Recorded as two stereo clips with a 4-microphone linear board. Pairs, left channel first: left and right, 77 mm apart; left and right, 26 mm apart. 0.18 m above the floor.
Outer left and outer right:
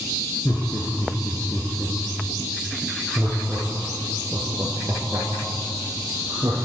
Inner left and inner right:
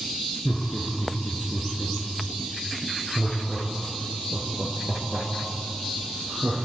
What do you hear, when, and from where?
0.5 s laughter: 25° left (ahead or behind), 2.5 m; by 6.5 s 30° right (ahead or behind), 4 m